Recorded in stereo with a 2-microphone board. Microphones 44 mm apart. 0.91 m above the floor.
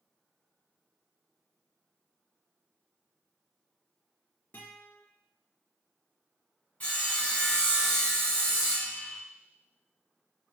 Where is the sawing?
30° left (ahead or behind), 1.4 m.